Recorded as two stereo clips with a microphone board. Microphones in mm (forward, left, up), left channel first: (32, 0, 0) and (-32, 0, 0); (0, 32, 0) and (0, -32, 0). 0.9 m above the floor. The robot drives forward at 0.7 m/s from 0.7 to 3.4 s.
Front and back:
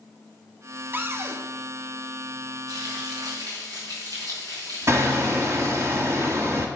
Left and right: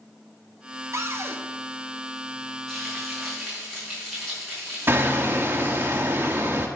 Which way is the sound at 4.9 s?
140° right.